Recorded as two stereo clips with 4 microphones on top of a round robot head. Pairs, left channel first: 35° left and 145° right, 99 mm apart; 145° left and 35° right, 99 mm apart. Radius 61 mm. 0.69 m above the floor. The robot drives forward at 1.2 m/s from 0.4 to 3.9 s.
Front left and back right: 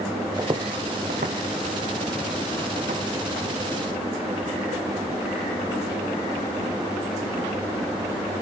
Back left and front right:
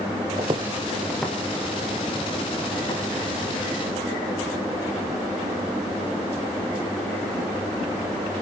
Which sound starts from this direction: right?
Footsteps, at 0.4 s.